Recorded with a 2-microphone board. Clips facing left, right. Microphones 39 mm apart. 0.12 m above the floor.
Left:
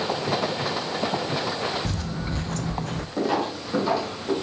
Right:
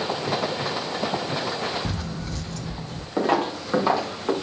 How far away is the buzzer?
I don't hear a buzzer.